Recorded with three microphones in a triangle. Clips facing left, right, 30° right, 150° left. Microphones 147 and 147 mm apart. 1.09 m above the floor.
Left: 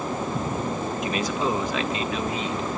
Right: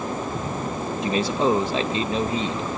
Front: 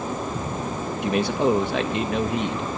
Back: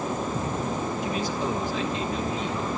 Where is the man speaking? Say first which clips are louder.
Right 6 dB, front 11 dB; 30° right, 1.5 m.